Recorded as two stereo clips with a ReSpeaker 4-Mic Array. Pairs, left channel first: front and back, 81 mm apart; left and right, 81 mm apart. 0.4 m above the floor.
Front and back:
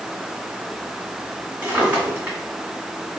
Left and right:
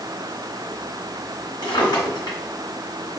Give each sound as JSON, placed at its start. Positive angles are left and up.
{"t": 1.6, "sound": "a drawer", "azimuth_deg": 110, "distance_m": 2.0}